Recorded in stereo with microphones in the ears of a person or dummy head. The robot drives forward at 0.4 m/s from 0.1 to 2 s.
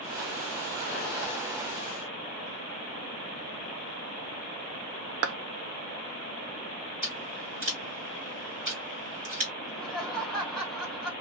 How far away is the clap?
About 0.8 m.